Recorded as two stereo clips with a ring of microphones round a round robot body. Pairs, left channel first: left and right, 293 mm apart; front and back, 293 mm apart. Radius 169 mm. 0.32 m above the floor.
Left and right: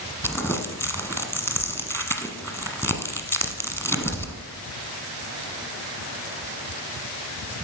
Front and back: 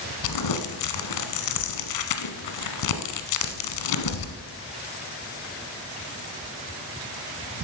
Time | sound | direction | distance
0.2 | crumpling | 5° left | 1.1 m